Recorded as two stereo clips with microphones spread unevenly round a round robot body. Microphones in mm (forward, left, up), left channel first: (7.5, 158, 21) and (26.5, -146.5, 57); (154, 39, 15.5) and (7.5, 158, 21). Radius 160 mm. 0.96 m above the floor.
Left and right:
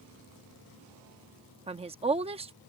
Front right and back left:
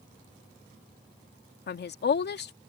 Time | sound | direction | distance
1.7 | a woman speaking | 15° right | ?